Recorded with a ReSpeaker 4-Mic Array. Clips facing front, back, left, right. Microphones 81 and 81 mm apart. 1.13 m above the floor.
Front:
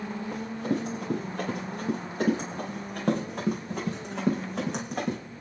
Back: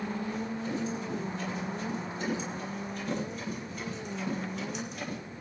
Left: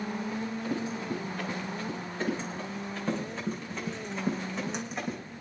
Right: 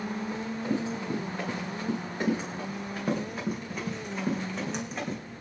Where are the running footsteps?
25° right, 6.5 m; by 5.2 s 5° left, 4 m.